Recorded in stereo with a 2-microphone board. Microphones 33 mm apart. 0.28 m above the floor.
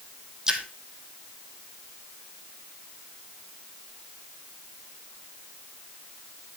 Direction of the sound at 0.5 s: 20° right (ahead or behind).